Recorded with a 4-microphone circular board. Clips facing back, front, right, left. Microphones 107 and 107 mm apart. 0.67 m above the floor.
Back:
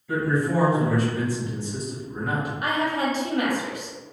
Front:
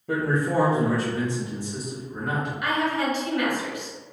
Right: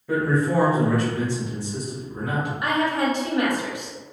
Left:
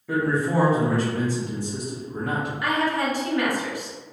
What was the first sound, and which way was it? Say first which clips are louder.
A man speaking: back 1 dB, right 1 dB; straight ahead.